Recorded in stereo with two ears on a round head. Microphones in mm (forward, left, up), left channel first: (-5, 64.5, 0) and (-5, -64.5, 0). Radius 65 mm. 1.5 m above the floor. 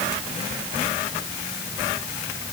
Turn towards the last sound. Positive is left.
No sound to turn to.